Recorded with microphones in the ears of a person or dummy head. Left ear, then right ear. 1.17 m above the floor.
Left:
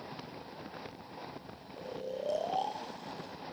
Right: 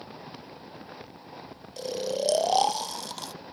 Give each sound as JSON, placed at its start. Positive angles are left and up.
{"t": 1.8, "sound": "snoring", "side_deg": -65, "distance_m": 0.5}